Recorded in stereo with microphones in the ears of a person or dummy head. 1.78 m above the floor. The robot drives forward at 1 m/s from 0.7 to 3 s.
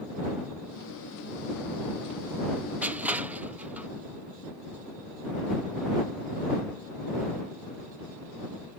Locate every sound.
2.8 s crushing: 5° right (ahead or behind)